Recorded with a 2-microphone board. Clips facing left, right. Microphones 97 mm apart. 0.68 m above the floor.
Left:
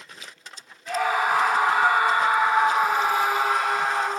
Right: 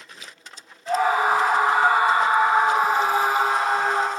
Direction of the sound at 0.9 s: 30° right (ahead or behind).